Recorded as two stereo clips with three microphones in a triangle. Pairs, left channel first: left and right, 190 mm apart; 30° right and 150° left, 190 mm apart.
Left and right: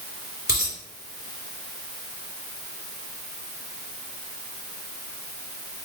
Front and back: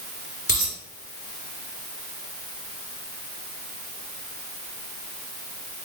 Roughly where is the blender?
No blender in this recording.